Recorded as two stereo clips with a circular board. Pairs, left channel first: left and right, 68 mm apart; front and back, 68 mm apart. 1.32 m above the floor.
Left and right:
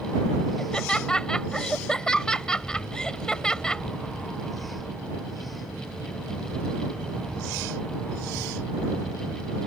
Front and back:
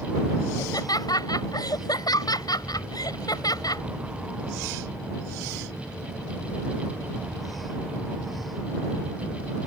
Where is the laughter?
10° left.